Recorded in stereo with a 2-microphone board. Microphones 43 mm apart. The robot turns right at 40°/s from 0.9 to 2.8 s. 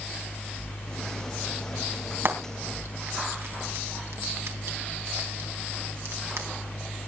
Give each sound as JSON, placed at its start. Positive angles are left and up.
{"t": 2.2, "sound": "frying", "side_deg": -65, "distance_m": 3.5}